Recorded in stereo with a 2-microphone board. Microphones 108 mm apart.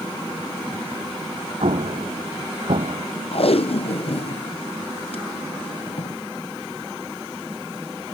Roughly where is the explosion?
Right.